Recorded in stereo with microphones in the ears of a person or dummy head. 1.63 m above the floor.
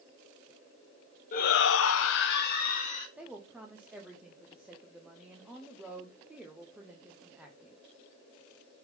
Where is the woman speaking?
5° right (ahead or behind), 0.9 m.